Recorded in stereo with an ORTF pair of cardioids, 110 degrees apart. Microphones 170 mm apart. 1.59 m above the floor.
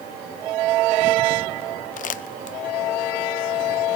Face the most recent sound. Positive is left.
turn(degrees=50)